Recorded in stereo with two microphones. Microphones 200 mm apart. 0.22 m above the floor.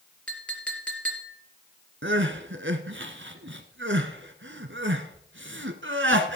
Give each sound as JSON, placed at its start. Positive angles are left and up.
{"t": 0.3, "sound": "a clink", "side_deg": 5, "distance_m": 3.0}
{"t": 2.0, "sound": "crying", "side_deg": -70, "distance_m": 1.3}